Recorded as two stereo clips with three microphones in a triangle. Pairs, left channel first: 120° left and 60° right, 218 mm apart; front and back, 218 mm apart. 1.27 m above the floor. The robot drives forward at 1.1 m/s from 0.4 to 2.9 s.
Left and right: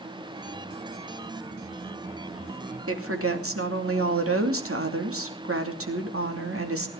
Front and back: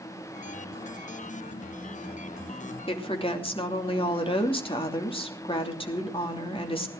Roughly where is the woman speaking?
Ahead right.